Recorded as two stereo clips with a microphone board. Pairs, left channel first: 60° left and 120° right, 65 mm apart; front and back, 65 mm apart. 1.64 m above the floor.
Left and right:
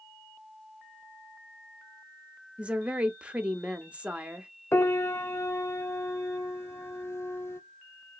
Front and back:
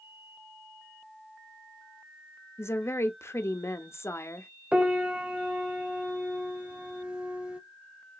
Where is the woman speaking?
50° right, 0.7 m.